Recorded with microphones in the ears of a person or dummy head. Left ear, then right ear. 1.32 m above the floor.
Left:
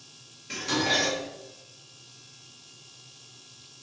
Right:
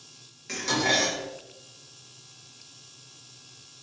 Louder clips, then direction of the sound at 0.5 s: Right 1 dB; 65° right (ahead or behind).